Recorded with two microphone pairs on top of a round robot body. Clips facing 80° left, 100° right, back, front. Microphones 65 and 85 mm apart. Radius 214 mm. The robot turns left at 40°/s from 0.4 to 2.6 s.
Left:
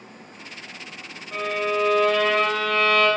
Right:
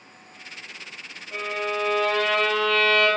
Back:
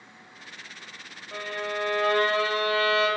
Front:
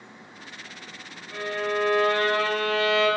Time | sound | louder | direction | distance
1.3 | a violin | left 3 dB, front 4 dB | 145° left | 1.3 m